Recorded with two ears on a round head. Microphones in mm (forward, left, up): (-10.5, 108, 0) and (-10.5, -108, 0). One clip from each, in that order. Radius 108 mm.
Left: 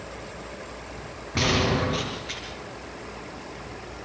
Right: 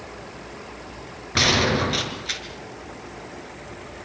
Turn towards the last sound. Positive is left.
turn(degrees=-45)  # may be behind; listen again after turning